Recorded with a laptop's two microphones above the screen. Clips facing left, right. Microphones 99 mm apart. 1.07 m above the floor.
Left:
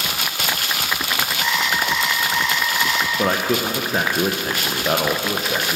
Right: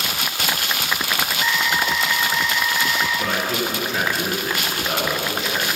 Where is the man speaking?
40° left (ahead or behind), 0.7 m.